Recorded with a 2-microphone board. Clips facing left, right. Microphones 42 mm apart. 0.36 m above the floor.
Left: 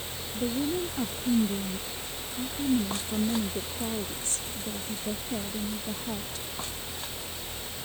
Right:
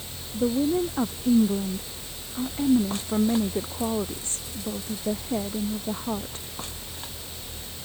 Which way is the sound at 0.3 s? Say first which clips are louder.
Right 6 dB; 40° right (ahead or behind).